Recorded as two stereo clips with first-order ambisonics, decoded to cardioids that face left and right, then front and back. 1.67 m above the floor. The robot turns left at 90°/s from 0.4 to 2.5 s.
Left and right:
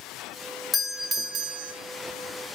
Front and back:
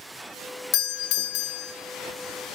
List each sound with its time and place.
0.7 s a doorbell: 20° left, 0.6 m; by 1.7 s 70° right, 0.6 m